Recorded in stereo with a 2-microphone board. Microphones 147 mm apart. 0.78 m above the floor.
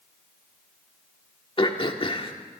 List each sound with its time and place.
1.6 s throat clearing: 35° left (ahead or behind), 1.5 m